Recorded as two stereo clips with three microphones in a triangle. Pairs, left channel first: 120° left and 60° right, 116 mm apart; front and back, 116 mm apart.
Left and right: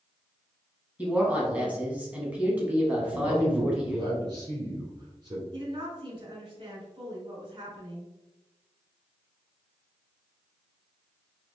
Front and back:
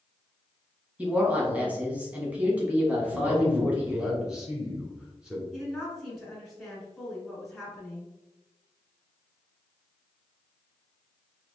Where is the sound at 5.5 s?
90° right, 1.9 m.